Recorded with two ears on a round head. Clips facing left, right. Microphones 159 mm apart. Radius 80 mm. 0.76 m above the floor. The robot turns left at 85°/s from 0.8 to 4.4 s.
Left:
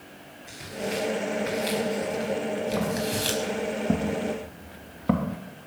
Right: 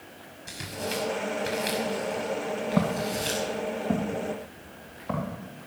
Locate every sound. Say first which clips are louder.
0.5 s tearing paper: left 2 dB; 75° right (ahead or behind), 5 m; by 3.4 s 60° left (ahead or behind), 5 m
2.8 s footsteps: right 1 dB; 55° right (ahead or behind), 4.5 m; by 5.4 s 65° left (ahead or behind), 3.5 m